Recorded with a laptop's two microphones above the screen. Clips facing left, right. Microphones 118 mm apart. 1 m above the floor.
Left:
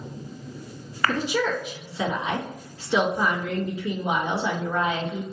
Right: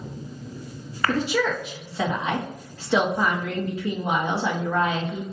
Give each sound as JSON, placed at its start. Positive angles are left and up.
{"t": 1.1, "sound": "a woman speaking", "side_deg": -70, "distance_m": 1.7}